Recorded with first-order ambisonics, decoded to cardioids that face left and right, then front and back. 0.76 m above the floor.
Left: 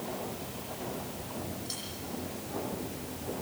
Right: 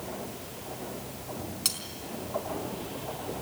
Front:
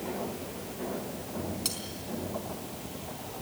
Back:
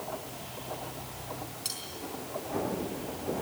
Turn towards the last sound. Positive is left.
turn(degrees=-75)